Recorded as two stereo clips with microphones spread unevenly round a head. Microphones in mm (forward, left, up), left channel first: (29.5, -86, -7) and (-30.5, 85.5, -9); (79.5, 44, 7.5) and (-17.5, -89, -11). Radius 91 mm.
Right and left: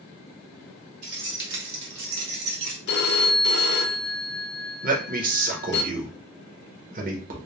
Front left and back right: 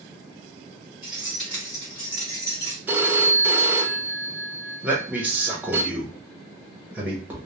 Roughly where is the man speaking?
Behind left.